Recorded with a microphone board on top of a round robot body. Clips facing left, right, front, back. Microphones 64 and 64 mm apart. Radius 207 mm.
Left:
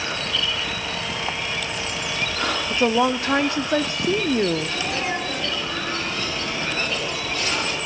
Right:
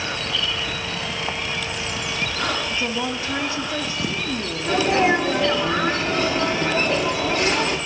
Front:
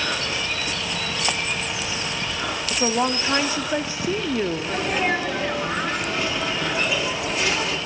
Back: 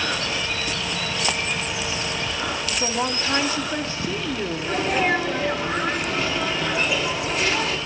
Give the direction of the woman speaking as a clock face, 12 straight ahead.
10 o'clock.